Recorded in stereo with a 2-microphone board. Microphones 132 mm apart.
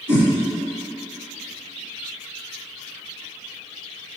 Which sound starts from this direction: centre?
A whoosh, at 0.1 s.